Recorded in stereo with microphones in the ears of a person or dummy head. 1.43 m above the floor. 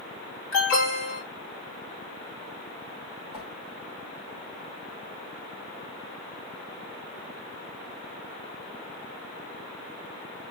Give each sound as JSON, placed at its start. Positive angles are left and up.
{"t": 0.5, "sound": "an alarm", "side_deg": 75, "distance_m": 4.5}
{"t": 3.3, "sound": "a whoosh", "side_deg": 55, "distance_m": 2.5}